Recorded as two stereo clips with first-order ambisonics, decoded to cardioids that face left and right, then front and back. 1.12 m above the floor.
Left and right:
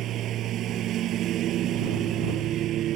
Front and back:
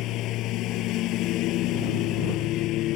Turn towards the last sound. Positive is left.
turn(degrees=-40)